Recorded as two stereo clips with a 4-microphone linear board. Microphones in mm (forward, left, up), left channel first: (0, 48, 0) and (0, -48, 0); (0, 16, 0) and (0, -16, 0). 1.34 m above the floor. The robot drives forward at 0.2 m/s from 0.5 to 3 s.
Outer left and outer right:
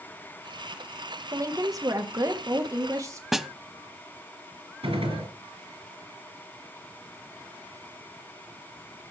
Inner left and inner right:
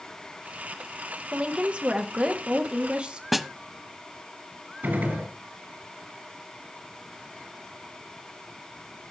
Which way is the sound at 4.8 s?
65° right (ahead or behind).